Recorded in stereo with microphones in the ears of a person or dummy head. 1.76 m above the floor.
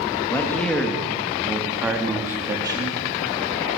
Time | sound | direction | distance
0.3 | a man speaking | 15° left (ahead or behind) | 2.5 m